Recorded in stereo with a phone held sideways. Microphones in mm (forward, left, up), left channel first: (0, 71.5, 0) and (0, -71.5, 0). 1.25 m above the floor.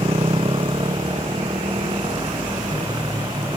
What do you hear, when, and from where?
0.0 s a motorcycle: 40° right (ahead or behind); by 3.6 s 30° right (ahead or behind)